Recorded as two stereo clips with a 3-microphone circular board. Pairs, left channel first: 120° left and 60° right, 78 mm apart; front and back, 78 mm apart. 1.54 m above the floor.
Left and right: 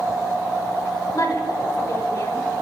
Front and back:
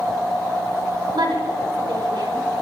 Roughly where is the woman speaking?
Behind.